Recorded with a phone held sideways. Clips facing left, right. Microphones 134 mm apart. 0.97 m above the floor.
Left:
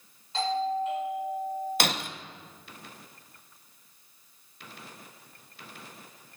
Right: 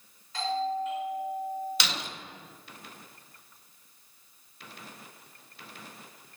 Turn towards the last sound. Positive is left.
turn(degrees=50)  # may be behind; listen again after turning